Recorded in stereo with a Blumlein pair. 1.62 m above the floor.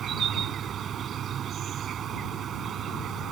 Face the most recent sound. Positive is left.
turn(degrees=-25)